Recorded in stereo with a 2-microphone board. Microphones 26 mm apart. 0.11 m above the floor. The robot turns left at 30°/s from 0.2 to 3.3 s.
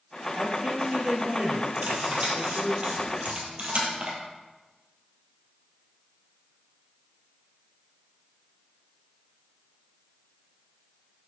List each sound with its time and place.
0.3 s a man speaking: 35° right, 2.5 m; by 2.8 s 110° right, 2.5 m
1.8 s cutlery clinking: 60° right (ahead or behind), 1.8 m; by 4.1 s 50° right (ahead or behind), 1.8 m